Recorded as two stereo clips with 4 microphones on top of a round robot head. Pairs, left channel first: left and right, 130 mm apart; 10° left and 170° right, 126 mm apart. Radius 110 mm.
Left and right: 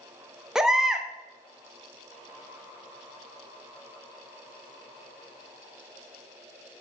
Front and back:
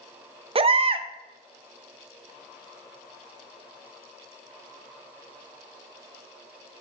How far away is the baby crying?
About 0.5 m.